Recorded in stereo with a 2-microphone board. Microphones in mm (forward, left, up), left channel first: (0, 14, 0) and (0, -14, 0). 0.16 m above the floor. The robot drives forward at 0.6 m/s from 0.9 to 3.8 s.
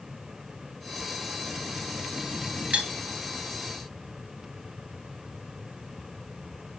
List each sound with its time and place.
2.7 s cutlery clinking: 50° right (ahead or behind), 1.4 m